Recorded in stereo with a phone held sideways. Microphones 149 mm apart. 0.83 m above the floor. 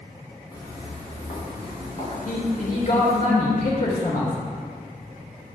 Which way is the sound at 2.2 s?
60° left (ahead or behind).